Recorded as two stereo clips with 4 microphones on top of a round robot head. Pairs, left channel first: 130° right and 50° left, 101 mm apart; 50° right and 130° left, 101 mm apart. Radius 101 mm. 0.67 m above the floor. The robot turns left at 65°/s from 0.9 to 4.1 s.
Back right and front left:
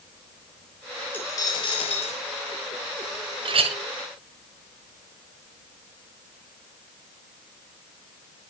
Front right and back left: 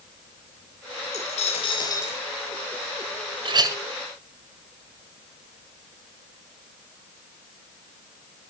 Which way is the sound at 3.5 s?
90° left.